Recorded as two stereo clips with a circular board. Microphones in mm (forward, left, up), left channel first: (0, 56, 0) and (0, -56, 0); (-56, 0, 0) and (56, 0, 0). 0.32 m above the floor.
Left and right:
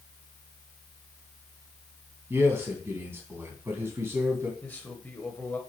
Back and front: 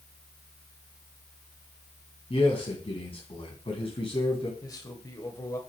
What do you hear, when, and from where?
2.3 s a man speaking: 155° right, 2.5 m
4.6 s a man speaking: 155° left, 1.6 m